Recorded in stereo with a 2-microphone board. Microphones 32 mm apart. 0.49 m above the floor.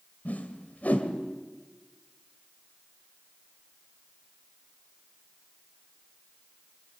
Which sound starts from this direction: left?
A whoosh, at 0.2 s.